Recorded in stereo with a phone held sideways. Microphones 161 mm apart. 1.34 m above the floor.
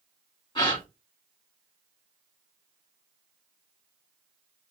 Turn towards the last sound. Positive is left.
turn(degrees=30)  # may be behind; listen again after turning